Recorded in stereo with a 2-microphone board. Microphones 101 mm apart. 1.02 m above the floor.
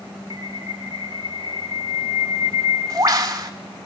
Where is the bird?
35° right (ahead or behind), 1.6 m.